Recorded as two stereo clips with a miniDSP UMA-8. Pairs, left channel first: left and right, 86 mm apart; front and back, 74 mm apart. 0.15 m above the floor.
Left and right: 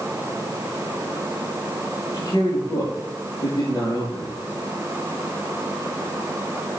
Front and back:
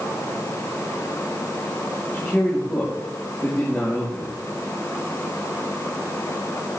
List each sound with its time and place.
2.1 s a man speaking: 55° left, 5.5 m